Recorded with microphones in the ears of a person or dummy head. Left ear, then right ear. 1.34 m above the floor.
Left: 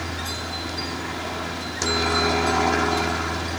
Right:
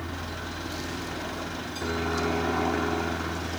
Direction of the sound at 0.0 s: 65° left (ahead or behind).